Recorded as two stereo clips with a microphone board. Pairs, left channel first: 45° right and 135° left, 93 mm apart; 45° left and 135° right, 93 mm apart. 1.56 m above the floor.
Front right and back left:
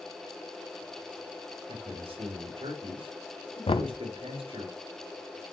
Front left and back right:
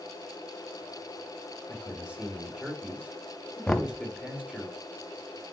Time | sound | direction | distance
1.7 | a man speaking | 145° left | 3.5 m
3.7 | knocking | 35° right | 0.9 m